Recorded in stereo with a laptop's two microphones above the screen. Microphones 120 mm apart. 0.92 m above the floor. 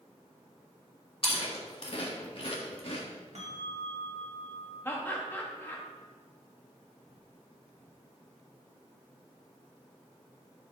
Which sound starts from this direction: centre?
Laughter, at 4.8 s.